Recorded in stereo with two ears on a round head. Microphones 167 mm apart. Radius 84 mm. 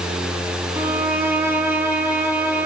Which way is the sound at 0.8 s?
15° right (ahead or behind).